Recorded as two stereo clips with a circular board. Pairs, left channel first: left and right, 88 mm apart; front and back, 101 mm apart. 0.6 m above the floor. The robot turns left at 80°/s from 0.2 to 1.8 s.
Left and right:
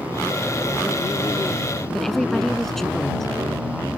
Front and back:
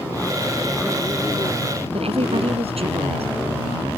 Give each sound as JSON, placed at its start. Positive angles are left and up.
{"t": 1.9, "sound": "a woman speaking", "azimuth_deg": 175}